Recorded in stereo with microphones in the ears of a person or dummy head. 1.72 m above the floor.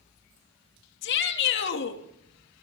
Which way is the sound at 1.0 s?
60° left (ahead or behind).